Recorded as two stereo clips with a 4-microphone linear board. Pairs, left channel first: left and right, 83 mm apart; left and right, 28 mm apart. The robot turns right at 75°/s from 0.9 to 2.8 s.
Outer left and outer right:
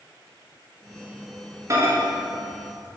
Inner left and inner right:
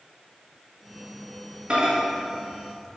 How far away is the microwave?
About 0.7 m.